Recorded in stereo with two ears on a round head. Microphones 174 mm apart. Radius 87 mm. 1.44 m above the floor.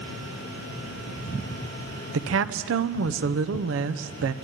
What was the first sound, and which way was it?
A woman speaking, 75° right (ahead or behind).